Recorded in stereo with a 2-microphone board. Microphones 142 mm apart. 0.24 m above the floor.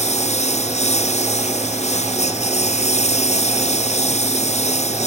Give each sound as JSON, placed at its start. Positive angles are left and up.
{"t": 0.0, "sound": "a lawn mower", "side_deg": 50}